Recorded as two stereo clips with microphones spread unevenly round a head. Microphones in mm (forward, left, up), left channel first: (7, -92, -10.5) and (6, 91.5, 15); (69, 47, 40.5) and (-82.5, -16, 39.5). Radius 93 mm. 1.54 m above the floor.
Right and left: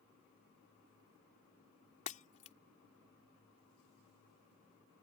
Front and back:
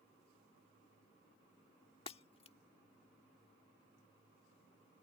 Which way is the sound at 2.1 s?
35° right.